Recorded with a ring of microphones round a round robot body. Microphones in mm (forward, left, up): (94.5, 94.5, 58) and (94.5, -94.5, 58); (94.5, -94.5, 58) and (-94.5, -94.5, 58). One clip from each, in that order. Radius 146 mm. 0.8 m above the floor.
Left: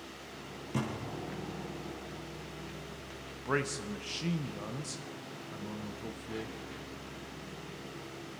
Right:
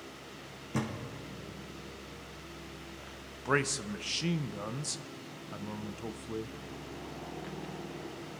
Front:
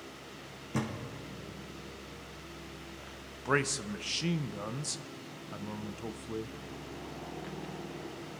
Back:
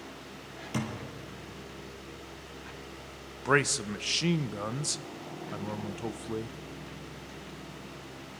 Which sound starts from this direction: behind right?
A man speaking, at 3.5 s.